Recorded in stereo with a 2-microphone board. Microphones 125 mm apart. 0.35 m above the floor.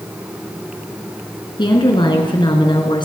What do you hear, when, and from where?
1.6 s a woman speaking: 40° left (ahead or behind), 3.5 m